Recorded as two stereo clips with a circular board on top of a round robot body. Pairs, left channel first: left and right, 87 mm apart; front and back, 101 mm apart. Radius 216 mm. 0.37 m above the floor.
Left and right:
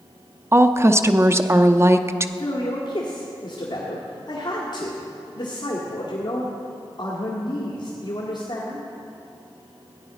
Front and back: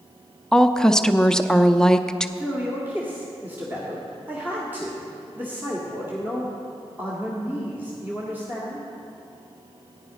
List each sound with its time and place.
0.5 s a woman speaking: 80° right, 0.8 m
2.4 s a man speaking: 110° left, 1.8 m